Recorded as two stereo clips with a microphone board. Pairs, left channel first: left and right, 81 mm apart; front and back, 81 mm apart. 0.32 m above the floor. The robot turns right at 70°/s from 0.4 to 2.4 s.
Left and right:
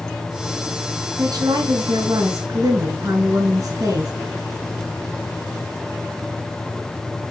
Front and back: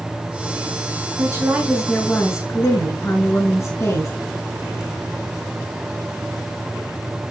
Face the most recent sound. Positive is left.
turn(degrees=-50)